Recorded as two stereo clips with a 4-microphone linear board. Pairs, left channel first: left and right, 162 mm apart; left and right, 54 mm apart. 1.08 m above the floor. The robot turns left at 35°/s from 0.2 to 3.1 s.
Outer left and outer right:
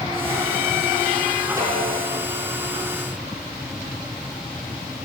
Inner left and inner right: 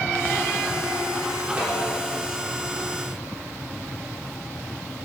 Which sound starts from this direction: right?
A snare drum, at 1.6 s.